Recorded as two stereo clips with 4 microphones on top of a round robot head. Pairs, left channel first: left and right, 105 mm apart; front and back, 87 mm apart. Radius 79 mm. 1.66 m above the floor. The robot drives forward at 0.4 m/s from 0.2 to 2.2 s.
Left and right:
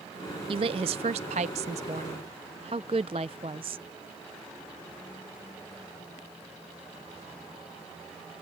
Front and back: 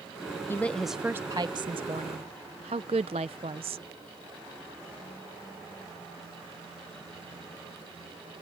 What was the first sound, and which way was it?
A woman speaking, 70° right.